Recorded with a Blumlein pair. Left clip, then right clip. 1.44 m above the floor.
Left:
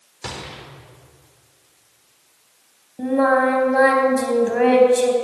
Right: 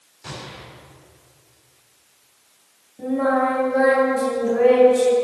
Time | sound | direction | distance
0.2 | a gunshot | 55° left | 4 m
3.0 | singing | 65° left | 3.5 m